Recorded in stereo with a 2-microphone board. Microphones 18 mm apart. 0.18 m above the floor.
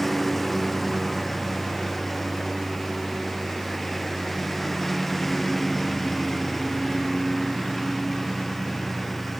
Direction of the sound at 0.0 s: 10° left (ahead or behind).